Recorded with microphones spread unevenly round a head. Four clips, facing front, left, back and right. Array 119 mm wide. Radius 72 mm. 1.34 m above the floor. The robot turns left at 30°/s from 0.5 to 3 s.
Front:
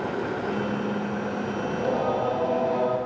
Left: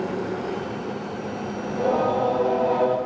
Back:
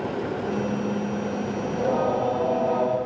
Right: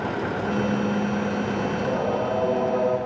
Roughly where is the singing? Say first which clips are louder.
Left 7 dB, back 2 dB; behind left.